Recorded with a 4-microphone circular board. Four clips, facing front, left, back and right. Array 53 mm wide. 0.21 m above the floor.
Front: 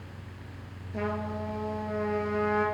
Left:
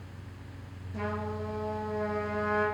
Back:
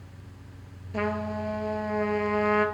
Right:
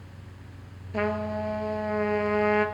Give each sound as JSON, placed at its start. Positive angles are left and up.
{"t": 0.9, "sound": "a trumpet", "azimuth_deg": -115, "distance_m": 0.6}